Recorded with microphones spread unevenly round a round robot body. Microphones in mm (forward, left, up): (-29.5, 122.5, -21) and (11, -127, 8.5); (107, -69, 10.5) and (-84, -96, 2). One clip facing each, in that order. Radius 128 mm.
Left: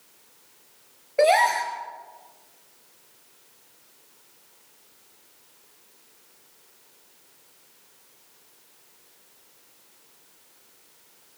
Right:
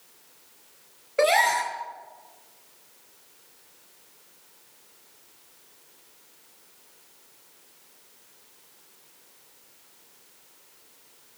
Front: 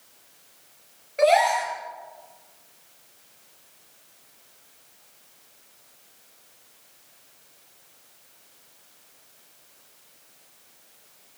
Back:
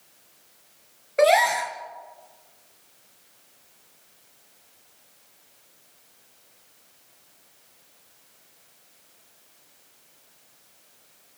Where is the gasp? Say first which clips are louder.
Left 3 dB, even; 150° right, 3.5 m.